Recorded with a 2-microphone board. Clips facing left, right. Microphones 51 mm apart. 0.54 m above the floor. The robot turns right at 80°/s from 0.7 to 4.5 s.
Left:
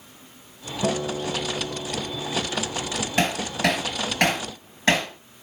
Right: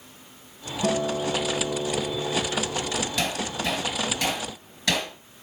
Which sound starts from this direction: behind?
A guitar, at 0.8 s.